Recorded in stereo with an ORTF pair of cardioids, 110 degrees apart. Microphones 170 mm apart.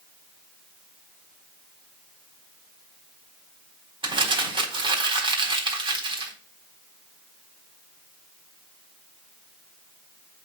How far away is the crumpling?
About 4 m.